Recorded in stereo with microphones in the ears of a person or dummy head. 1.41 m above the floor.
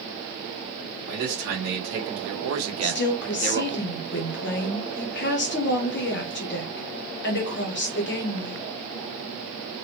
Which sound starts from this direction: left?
A woman speaking, at 2.8 s.